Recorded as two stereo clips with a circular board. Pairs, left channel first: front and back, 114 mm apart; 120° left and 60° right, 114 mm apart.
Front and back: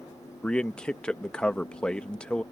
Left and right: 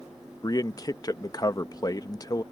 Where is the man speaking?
80° left.